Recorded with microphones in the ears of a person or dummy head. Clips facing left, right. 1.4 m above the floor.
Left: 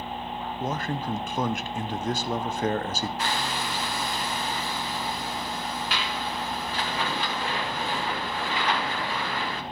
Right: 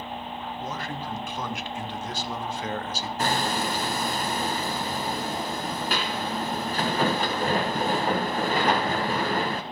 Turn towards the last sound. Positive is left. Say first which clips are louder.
# right 4 dB
turn(degrees=-40)  # may be behind; listen again after turning